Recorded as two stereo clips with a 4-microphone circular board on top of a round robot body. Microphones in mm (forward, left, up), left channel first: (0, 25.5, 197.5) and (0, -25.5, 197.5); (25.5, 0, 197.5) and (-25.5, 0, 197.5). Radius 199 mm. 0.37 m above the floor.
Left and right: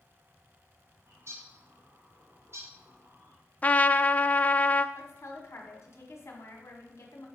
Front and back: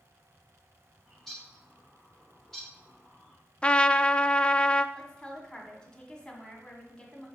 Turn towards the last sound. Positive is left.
turn(degrees=70)